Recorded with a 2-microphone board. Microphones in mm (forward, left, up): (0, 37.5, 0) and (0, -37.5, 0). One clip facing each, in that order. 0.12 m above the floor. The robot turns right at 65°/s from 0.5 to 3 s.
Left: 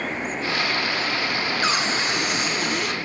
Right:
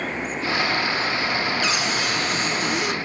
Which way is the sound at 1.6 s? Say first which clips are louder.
Left 1 dB; 105° left.